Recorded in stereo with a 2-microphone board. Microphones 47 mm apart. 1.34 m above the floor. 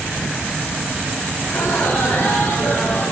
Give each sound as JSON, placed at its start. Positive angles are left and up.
{"t": 1.4, "sound": "laughter", "side_deg": 60, "distance_m": 4.5}